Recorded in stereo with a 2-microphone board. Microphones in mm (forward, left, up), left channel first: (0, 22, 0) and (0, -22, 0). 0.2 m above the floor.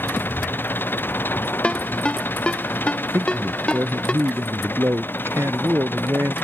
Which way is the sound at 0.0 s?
50° left (ahead or behind).